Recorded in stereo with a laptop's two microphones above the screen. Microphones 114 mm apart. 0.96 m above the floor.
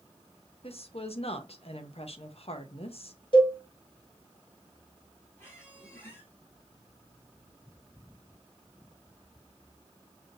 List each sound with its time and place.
0.6 s a woman speaking: 60° left (ahead or behind), 0.6 m
3.3 s a cowbell: 45° left (ahead or behind), 1.3 m
5.4 s a squeak: 20° left (ahead or behind), 3.5 m